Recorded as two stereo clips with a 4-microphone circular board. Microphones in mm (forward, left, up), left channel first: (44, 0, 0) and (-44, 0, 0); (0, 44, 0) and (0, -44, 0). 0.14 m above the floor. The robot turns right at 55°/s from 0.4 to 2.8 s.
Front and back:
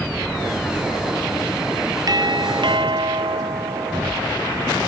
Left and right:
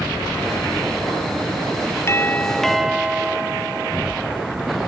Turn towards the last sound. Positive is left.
turn(degrees=-175)